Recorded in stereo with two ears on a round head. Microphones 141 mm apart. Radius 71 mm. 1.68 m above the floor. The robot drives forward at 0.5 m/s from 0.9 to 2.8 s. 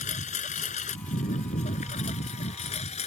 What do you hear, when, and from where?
0.0 s a lawn mower: 50° left (ahead or behind); by 3.1 s 45° left (ahead or behind)